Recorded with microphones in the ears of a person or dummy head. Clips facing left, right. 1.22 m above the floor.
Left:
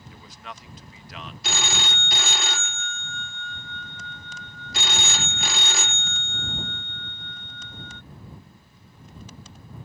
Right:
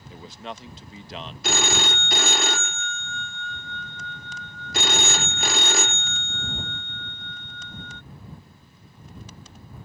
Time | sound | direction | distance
0.1 | a man speaking | 25° right (ahead or behind) | ?
1.4 | a phone ringing | 40° right (ahead or behind) | ?